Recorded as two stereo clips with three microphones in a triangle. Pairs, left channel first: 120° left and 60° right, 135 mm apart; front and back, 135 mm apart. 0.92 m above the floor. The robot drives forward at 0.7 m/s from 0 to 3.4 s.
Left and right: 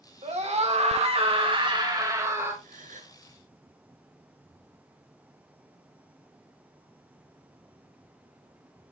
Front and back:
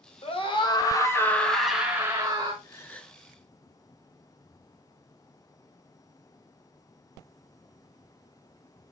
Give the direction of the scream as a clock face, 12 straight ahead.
1 o'clock.